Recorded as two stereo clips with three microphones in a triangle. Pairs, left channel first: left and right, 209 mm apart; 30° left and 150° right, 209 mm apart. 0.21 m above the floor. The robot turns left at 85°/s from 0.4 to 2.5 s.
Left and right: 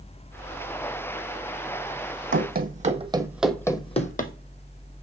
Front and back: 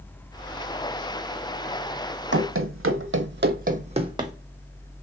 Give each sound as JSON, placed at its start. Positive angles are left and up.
{"t": 2.3, "sound": "running footsteps", "azimuth_deg": -115, "distance_m": 0.8}